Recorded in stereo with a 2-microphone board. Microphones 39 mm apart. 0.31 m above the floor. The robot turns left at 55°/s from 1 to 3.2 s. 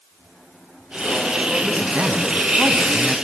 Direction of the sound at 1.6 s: 45° right.